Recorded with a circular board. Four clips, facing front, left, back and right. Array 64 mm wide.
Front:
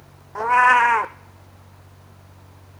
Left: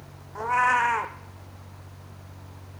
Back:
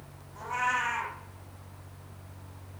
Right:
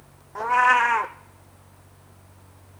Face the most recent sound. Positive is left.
turn(degrees=-10)